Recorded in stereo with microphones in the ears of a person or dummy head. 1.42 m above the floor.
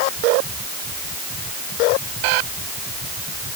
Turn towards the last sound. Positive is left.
No sound to turn to.